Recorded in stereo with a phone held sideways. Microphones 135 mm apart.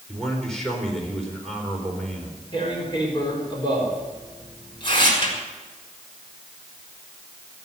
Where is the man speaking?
5° left (ahead or behind), 4.5 m.